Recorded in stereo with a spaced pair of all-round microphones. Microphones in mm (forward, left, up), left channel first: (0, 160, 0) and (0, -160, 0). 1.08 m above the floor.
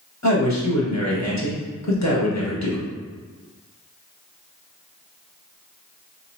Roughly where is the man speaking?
Left.